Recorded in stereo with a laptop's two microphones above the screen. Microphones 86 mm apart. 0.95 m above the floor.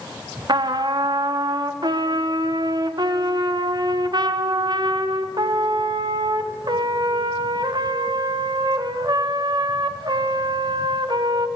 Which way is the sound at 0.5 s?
55° right (ahead or behind).